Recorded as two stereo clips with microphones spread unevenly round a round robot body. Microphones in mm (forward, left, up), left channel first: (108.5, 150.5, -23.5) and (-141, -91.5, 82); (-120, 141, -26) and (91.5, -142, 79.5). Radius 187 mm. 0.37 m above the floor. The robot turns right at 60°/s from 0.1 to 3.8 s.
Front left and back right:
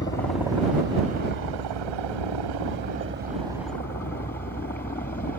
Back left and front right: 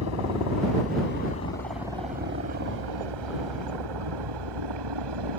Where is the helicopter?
110° left; by 5.4 s 30° right.